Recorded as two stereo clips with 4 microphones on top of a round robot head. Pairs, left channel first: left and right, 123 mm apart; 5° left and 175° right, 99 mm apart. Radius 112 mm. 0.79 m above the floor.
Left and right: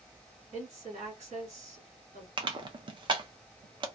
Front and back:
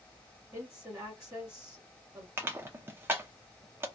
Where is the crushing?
120° right, 0.7 m.